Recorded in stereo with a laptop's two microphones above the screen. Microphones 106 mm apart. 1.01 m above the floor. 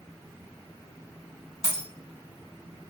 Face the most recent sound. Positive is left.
turn(degrees=55)  # may be behind; listen again after turning